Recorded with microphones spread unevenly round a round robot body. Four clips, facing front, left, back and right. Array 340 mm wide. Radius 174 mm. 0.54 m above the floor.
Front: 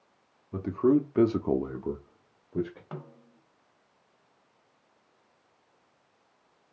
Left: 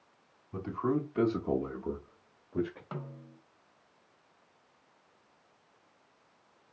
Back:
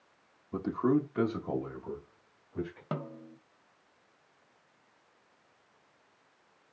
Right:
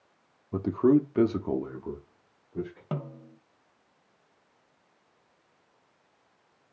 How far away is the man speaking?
About 1.4 m.